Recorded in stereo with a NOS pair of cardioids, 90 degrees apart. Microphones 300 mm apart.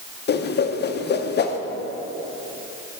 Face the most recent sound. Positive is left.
turn(degrees=35)